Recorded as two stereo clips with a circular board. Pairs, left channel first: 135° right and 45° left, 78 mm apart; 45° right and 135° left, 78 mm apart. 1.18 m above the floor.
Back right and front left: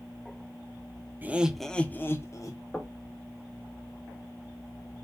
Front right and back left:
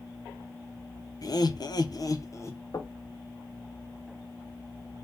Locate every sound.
1.2 s laughter: 20° right, 0.5 m; by 2.6 s 95° right, 0.8 m
2.7 s knocking: 60° right, 0.6 m